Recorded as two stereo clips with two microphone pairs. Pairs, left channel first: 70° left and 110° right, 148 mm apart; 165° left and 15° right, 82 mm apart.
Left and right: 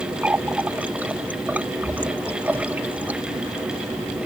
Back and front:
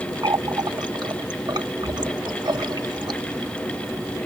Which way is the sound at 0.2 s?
30° right.